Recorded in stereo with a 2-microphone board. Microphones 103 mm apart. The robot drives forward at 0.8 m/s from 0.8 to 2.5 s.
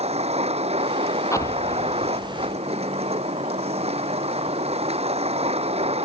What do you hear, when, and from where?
0.0 s a vehicle: 80° right
1.3 s an explosion: 30° left (ahead or behind)